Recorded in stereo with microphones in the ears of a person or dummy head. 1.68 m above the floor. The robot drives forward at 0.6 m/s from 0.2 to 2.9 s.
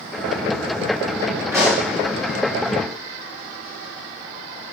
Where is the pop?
15° right (ahead or behind), 1.7 m.